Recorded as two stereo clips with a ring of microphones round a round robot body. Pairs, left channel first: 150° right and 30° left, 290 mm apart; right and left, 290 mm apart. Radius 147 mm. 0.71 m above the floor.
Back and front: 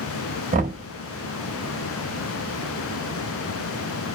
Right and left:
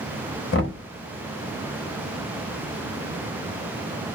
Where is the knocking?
35° right, 1.1 m.